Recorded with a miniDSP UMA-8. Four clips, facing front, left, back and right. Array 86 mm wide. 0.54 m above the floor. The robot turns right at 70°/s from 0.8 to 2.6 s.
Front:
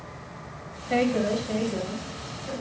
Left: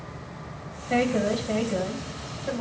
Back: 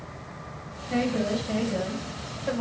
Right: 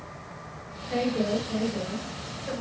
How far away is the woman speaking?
About 3.5 m.